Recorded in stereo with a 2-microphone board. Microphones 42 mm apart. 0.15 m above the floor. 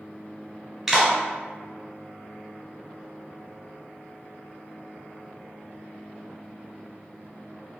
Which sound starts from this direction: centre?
A clap, at 0.9 s.